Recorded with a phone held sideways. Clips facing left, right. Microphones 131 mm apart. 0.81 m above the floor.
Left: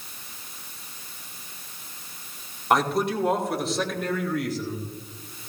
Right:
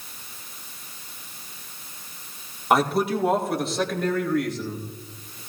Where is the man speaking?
5° right (ahead or behind), 2.5 m; by 5.4 s 5° left (ahead or behind), 3.5 m.